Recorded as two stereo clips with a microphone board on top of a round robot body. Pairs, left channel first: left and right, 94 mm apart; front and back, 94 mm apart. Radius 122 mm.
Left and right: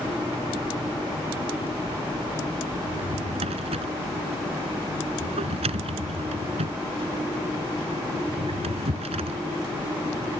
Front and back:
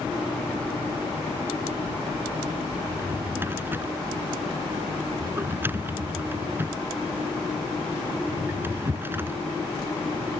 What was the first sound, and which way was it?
A drawer, 110° right.